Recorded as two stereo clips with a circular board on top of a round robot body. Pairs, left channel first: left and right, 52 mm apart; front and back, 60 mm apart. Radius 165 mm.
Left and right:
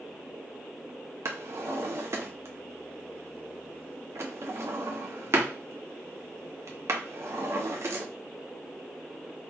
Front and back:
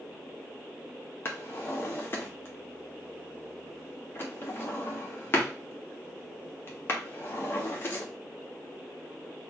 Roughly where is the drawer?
Ahead right.